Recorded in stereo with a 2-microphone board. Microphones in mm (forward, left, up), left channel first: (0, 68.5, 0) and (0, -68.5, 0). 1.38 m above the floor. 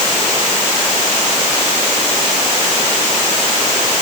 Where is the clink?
I don't hear a clink.